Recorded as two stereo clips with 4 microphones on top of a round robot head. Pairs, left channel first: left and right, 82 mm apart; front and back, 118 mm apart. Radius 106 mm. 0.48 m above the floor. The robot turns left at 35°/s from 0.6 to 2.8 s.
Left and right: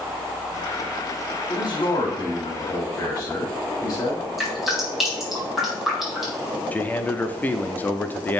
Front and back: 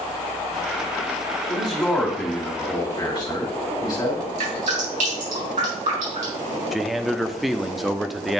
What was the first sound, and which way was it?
A man speaking, 95° left.